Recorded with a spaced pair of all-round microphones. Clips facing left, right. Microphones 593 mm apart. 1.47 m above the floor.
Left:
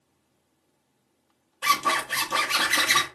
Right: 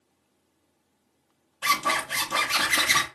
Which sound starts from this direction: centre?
A zipper, at 1.6 s.